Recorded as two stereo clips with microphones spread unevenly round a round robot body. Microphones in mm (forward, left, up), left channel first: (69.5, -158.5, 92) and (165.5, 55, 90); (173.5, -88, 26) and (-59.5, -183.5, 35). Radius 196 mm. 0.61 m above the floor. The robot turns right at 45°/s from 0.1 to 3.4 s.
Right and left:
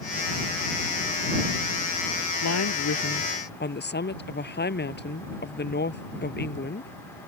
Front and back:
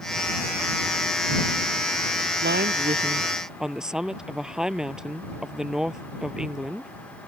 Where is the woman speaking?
115° right; by 6.9 s 70° right.